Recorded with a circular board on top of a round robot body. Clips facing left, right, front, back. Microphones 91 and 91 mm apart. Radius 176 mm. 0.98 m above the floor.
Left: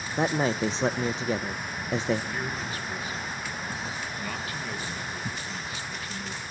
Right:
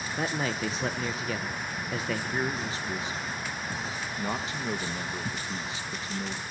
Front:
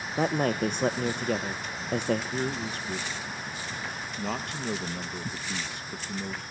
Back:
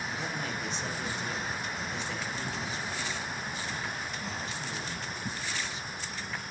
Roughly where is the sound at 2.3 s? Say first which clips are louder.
Right 2 dB, front 5 dB; ahead right.